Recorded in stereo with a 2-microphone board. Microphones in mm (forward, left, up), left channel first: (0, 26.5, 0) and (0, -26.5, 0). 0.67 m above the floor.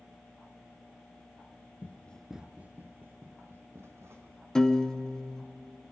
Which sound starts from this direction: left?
Running footsteps, at 1.8 s.